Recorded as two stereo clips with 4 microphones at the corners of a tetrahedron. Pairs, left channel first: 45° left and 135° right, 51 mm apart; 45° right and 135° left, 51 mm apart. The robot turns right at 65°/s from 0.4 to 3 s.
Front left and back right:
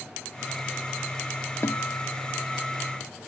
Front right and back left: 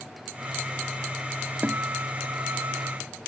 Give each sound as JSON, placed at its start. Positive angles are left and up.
{"t": 1.6, "sound": "a guitar", "azimuth_deg": 75}